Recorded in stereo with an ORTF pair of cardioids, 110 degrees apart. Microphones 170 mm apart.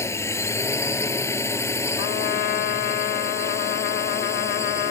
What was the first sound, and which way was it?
A drone, 15° left.